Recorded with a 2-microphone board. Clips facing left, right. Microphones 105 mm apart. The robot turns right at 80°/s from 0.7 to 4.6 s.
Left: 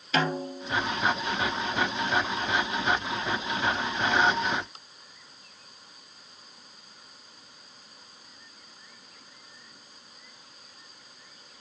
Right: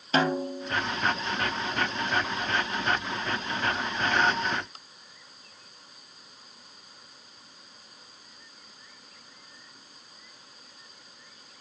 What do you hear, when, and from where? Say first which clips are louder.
0.1 s a snare drum: right 2 dB; 35° right (ahead or behind), 1.0 m; by 0.8 s 30° right (ahead or behind), 1.0 m